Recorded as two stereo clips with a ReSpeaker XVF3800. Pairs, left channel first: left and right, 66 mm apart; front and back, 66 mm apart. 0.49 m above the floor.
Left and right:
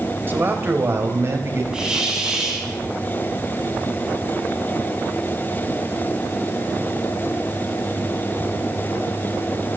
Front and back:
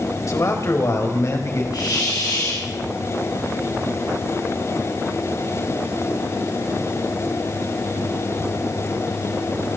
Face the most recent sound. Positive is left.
turn(degrees=-10)